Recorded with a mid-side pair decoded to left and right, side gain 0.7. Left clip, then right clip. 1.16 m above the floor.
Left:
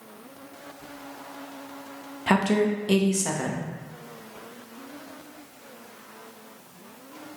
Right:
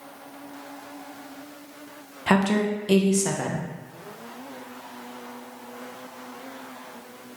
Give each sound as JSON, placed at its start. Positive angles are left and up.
{"t": 2.3, "sound": "a woman speaking", "azimuth_deg": -5, "distance_m": 0.6}